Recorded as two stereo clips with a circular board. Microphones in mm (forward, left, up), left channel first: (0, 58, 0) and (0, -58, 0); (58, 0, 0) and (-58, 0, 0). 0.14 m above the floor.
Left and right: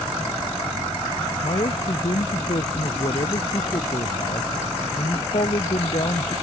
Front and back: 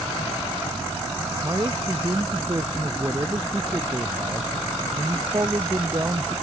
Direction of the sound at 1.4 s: 120° left.